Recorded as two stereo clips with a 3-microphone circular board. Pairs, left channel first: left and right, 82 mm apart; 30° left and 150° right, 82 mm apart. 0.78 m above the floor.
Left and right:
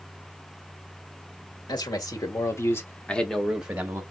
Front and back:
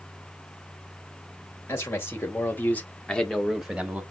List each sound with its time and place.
1.7 s a man speaking: 80° left, 1.6 m; by 4.0 s 85° right, 1.0 m